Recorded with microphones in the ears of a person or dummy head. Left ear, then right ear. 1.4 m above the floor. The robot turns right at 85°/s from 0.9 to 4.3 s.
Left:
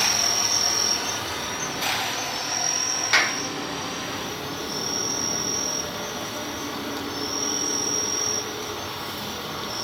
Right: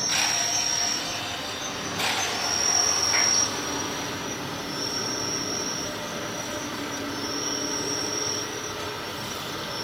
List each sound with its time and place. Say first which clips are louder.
0.0 s an insect: left 2 dB; 90° left, 3.5 m; by 9.8 s 20° left, 3.5 m
3.1 s a clap: left 5 dB; 60° left (ahead or behind), 1.5 m; by 3.4 s 80° left, 1.5 m